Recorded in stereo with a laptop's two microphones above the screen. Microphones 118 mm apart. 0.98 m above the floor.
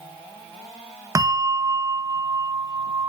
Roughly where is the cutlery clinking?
No cutlery clinking in this recording.